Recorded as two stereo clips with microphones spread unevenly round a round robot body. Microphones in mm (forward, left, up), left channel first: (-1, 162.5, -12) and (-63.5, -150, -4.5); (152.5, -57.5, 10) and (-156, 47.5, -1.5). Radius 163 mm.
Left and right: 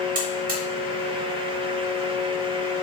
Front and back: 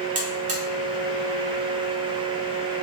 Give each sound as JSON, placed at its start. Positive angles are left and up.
{"t": 0.1, "sound": "a buzzer", "azimuth_deg": -150, "distance_m": 1.4}